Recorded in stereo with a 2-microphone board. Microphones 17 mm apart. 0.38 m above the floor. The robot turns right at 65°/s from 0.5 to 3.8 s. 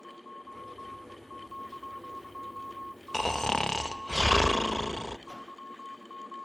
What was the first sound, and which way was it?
Snoring, 15° left.